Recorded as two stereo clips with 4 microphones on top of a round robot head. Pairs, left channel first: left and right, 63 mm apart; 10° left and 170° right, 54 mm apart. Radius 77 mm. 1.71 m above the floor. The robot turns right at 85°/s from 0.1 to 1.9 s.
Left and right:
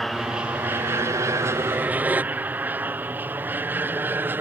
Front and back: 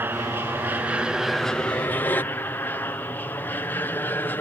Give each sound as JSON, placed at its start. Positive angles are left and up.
{"t": 0.0, "sound": "an aircraft", "azimuth_deg": 180}